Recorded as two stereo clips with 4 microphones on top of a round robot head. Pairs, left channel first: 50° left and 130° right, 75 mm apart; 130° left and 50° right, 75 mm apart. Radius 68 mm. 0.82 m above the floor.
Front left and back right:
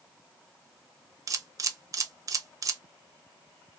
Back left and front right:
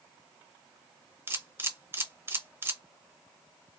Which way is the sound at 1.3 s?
100° right.